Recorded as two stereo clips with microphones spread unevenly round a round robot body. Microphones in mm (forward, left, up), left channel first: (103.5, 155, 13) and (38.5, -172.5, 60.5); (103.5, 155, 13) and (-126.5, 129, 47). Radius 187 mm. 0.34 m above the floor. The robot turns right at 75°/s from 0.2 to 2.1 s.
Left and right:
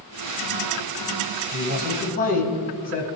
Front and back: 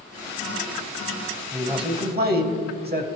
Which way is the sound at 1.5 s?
95° left.